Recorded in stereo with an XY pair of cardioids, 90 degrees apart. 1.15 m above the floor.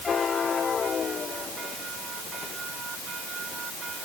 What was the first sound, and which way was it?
Only background noise.